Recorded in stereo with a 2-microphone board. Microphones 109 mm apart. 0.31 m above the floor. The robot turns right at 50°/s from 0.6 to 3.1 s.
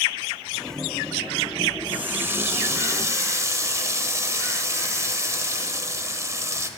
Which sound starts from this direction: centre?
A running tap, at 1.9 s.